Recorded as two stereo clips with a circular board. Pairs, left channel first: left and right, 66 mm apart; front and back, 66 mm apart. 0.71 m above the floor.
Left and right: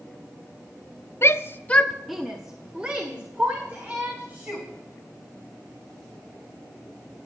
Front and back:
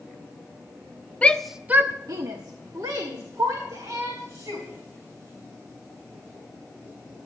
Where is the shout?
65° left, 0.6 m; by 4.7 s 155° right, 3 m.